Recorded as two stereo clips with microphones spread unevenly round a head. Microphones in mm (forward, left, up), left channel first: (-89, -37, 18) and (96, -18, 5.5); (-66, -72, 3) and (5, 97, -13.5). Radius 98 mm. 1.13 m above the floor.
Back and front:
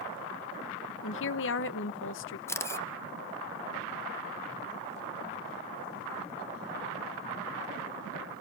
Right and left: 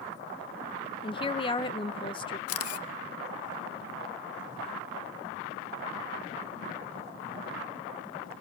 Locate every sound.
1.0 s a woman speaking: 175° right, 0.9 m
2.5 s a camera shutter: 100° right, 0.8 m